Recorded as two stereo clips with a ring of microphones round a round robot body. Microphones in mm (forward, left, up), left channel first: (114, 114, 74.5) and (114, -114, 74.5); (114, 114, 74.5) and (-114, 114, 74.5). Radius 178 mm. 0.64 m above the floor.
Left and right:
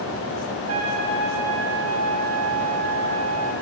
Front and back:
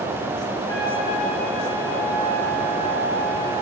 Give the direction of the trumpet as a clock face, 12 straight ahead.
3 o'clock.